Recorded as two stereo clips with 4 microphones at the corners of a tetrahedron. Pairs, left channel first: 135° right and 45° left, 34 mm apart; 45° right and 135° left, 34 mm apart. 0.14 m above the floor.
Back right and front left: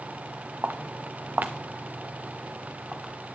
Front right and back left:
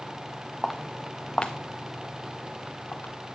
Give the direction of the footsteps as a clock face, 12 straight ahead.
10 o'clock.